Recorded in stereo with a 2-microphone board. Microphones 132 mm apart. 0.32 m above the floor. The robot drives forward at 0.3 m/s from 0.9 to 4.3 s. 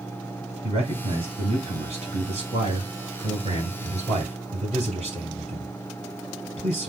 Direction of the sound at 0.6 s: 55° right (ahead or behind).